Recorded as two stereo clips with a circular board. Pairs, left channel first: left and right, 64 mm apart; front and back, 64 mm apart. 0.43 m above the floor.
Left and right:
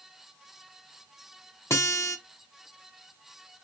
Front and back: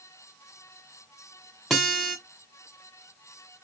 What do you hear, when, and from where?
1.7 s a guitar: 80° left, 1.6 m